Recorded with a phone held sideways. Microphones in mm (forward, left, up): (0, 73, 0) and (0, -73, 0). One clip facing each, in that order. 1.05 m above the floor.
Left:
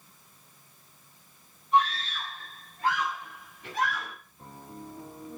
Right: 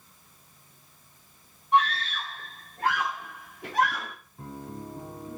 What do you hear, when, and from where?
1.7 s a scream: 75° right (ahead or behind), 3.5 m; by 4.2 s 65° right (ahead or behind), 1.5 m
4.4 s a piano: 70° right (ahead or behind), 3 m